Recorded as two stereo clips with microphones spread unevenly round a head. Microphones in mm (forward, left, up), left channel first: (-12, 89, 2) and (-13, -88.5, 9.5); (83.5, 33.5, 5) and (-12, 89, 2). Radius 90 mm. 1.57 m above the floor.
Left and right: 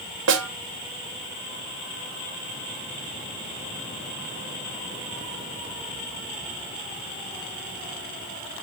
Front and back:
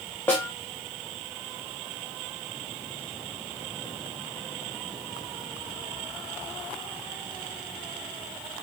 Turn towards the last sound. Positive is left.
turn(degrees=-110)